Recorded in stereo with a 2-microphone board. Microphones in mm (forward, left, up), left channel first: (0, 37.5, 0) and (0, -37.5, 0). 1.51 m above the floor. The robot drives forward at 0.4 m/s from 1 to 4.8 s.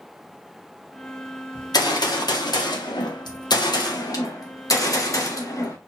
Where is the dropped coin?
No dropped coin in this recording.